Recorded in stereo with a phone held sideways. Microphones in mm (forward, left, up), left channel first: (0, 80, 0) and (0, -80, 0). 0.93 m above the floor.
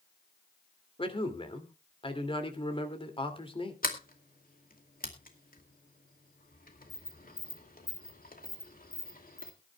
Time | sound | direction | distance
1.0 | a man speaking | 35° left (ahead or behind) | 2.5 m
3.8 | a sliding door | 65° left (ahead or behind) | 2 m